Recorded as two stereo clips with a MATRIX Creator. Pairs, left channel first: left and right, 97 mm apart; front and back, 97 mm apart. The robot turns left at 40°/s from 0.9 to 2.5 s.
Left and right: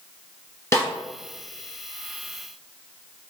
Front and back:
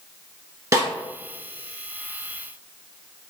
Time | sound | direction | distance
0.7 | a snare drum | 140° left | 2.0 m